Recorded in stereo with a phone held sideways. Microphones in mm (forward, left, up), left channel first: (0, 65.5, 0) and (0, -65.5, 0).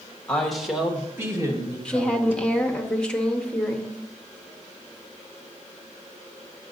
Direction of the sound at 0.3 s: 5° left (ahead or behind).